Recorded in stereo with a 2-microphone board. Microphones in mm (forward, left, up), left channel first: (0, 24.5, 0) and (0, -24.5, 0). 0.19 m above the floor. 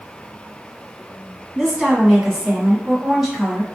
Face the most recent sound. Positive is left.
turn(degrees=-5)  # may be behind; listen again after turning